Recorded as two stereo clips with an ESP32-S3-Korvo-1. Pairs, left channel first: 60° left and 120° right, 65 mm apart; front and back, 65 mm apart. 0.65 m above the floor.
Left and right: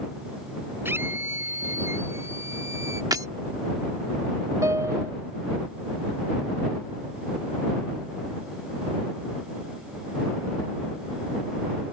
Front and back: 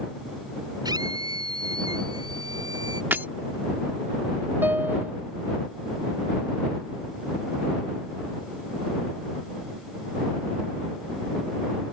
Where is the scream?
175° right; by 3.0 s 165° right.